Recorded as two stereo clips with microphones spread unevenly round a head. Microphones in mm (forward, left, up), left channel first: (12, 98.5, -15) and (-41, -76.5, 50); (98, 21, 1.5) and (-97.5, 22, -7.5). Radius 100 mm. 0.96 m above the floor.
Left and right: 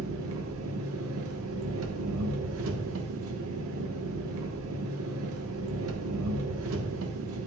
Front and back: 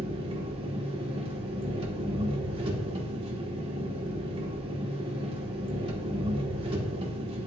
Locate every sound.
0.0 s an engine running: 115° right, 1.2 m